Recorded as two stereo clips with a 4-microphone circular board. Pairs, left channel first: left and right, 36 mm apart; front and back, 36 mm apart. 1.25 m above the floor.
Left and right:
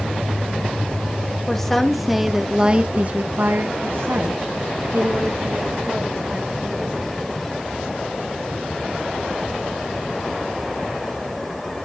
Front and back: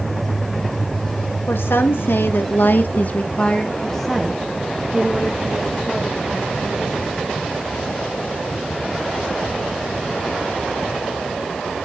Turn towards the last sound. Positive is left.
turn(degrees=-120)